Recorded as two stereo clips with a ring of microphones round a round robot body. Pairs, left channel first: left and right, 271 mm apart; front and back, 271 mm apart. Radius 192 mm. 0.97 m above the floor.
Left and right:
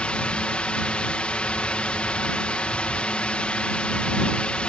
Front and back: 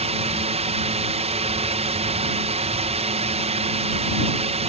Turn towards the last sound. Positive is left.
turn(degrees=170)